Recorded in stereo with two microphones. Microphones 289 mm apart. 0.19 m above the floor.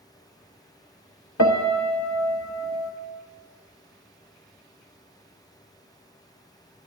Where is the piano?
70° left (ahead or behind), 0.6 m.